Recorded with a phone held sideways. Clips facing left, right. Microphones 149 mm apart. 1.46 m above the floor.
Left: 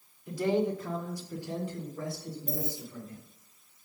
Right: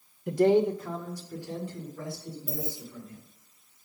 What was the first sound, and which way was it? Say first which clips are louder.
A man speaking: right 6 dB; 70° right (ahead or behind).